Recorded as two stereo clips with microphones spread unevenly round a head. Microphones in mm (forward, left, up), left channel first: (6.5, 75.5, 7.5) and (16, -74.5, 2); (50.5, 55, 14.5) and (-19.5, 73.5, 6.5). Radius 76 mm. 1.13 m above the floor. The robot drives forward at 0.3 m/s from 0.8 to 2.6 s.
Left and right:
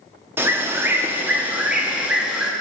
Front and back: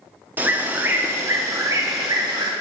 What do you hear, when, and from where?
0.4 s a bird: 150° right, 0.5 m; by 2.5 s 170° right, 0.9 m